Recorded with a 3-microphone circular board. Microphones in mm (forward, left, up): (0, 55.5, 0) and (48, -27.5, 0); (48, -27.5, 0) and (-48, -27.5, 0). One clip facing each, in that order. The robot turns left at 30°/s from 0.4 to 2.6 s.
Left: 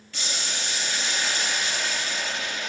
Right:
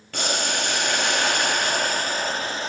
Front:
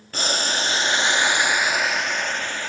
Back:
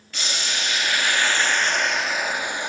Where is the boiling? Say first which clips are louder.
Right 8 dB, front 5 dB; 45° right, 1.1 m; by 2.7 s 110° right, 1.1 m.